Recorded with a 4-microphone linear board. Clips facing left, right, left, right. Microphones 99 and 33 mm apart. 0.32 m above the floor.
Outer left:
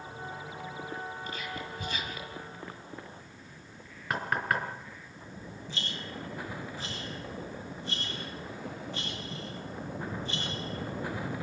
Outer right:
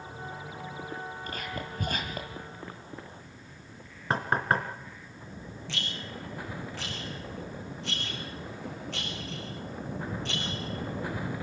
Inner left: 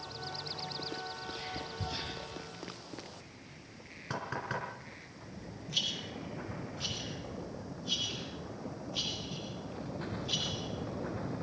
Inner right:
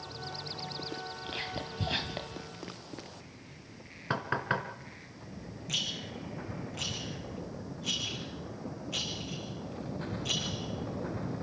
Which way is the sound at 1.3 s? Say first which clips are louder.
Outer right 1 dB, inner right 3 dB; 50° right (ahead or behind).